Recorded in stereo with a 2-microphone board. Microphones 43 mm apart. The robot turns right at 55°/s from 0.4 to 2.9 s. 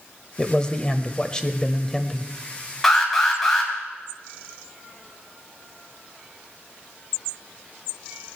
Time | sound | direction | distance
0.4 | a man speaking | 20° left (ahead or behind) | 0.9 m
2.8 | an alarm | 5° left (ahead or behind) | 3 m